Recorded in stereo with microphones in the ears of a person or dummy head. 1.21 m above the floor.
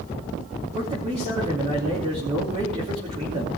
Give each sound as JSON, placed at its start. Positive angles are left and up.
{"t": 0.7, "sound": "a man speaking", "side_deg": -35, "distance_m": 2.5}